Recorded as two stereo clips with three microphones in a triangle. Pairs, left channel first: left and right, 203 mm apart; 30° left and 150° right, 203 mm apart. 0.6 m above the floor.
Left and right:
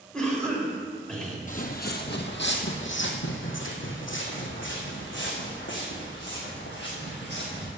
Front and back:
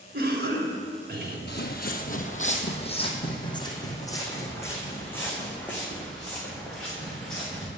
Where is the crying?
No crying in this recording.